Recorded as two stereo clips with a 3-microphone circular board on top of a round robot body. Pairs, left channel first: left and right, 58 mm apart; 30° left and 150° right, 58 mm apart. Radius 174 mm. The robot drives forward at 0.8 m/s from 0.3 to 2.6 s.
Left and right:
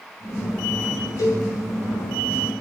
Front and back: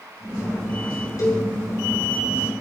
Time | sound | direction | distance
1.2 | a cowbell | 60° left | 5.5 m